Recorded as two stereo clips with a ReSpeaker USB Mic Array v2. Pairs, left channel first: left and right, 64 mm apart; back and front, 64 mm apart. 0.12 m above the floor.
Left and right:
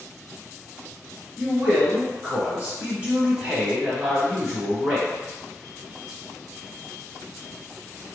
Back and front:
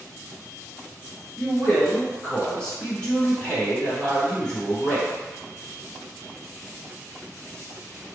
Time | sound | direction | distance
1.4 | a man speaking | 125° right | 1.9 m